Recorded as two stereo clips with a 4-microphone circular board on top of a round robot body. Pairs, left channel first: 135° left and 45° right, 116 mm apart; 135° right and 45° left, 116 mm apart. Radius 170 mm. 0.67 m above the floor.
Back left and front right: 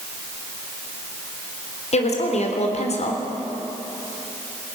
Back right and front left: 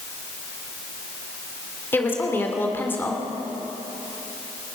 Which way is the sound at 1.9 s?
155° left.